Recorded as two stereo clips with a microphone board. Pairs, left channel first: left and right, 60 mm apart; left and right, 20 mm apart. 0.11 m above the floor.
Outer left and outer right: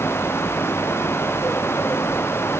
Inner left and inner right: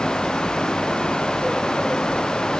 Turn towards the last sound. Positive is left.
No sound to turn to.